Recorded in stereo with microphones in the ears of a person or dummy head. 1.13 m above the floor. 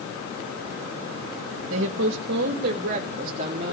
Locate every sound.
1.7 s a woman speaking: 75° right (ahead or behind), 1.5 m; by 3.7 s 35° right (ahead or behind), 2.5 m